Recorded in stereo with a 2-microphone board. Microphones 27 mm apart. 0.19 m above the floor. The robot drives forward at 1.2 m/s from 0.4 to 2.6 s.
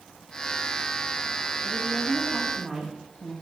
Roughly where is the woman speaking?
Centre.